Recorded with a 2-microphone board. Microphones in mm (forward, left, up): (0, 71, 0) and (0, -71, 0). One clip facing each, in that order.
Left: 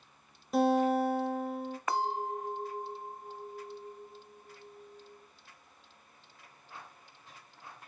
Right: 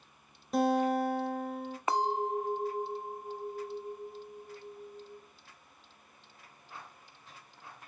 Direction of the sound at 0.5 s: Centre (ahead or behind).